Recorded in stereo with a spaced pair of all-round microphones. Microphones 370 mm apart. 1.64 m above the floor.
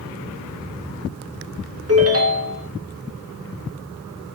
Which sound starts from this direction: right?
A ringtone, at 1.9 s.